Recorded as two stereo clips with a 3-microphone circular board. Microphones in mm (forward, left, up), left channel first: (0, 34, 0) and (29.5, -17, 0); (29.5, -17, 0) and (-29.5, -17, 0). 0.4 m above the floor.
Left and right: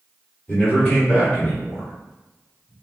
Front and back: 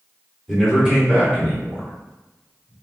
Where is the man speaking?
95° left, 1.7 m; by 2.7 s 165° right, 1.7 m.